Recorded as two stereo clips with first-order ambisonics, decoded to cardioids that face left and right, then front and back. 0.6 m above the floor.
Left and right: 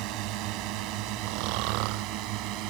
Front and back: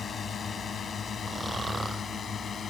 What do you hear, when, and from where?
0.0 s a drone: 65° right
1.2 s snoring: 100° right